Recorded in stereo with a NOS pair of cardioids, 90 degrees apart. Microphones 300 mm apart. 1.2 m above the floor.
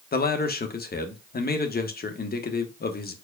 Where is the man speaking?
30° left, 1.1 m.